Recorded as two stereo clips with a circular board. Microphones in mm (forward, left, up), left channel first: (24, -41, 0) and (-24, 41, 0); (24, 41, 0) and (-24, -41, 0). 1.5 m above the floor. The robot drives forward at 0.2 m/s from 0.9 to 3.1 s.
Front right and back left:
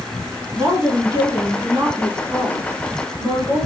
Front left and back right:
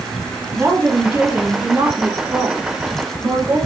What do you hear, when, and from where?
0.5 s a woman speaking: 175° left, 3 m